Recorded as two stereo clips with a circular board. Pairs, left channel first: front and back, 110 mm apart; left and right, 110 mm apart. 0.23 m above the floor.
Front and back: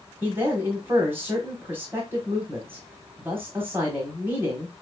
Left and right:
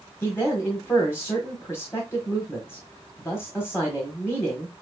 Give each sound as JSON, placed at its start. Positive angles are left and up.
{"t": 0.2, "sound": "a man speaking", "azimuth_deg": 130, "distance_m": 1.4}